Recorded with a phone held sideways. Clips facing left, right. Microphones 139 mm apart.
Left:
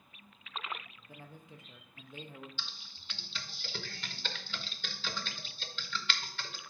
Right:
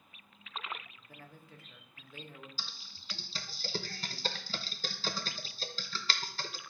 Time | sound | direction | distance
1.1 | a man speaking | 20° left (ahead or behind) | 0.7 m
2.6 | typing on a keyboard | 35° right (ahead or behind) | 0.6 m